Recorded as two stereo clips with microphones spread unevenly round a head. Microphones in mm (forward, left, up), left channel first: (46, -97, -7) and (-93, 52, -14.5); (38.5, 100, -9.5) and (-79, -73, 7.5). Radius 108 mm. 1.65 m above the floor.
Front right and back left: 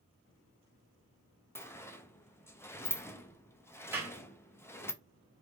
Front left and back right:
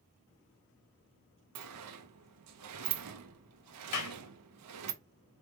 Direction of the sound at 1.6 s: 125° right.